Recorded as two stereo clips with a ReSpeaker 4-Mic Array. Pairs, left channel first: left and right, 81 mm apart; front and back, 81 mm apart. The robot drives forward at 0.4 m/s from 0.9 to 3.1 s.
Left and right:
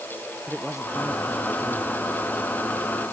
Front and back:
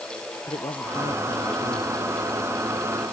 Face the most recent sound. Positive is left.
turn(degrees=-5)